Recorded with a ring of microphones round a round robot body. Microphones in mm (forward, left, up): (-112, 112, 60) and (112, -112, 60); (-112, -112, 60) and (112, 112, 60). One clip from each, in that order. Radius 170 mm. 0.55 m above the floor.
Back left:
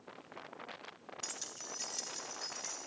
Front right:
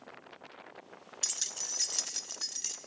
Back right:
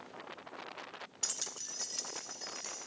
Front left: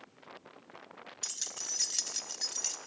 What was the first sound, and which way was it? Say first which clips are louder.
Keys jangling: front right 10 dB, front left 2 dB; 45° right.